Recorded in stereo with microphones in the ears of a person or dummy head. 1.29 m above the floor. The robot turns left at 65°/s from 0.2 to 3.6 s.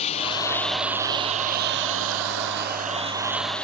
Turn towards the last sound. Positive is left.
turn(degrees=175)